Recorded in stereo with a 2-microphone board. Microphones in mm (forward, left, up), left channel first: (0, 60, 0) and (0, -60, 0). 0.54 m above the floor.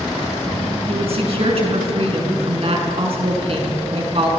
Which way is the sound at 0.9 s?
55° right (ahead or behind).